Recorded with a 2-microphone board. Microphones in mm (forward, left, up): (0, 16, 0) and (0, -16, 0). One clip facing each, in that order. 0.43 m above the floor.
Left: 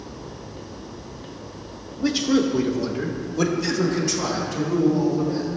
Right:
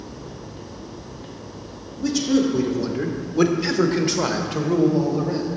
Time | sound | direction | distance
2.0 | a man speaking | 25° left (ahead or behind) | 0.9 m